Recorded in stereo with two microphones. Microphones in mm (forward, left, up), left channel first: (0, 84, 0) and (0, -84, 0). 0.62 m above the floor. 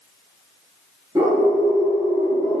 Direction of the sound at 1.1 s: 15° right (ahead or behind).